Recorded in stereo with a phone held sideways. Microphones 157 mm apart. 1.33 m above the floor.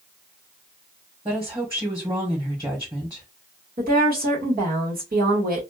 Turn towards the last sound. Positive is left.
turn(degrees=-70)  # may be behind; listen again after turning